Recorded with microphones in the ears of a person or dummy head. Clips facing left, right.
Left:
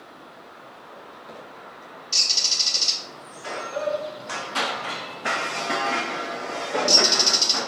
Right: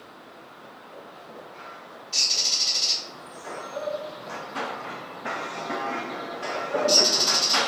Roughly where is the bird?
Left.